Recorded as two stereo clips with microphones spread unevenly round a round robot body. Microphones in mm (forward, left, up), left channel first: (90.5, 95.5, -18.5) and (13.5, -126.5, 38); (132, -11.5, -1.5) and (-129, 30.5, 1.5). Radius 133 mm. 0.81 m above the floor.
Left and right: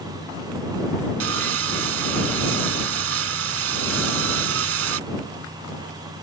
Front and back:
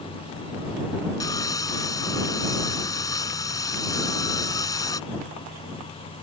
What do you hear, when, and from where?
1.2 s sawing: 85° right